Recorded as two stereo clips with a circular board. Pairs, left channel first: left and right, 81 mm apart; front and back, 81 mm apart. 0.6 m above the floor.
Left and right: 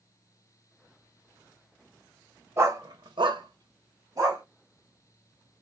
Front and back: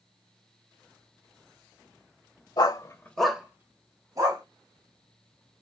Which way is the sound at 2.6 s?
35° right.